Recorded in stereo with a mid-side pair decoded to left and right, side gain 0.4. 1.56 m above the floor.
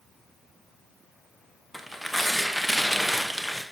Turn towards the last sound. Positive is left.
turn(degrees=0)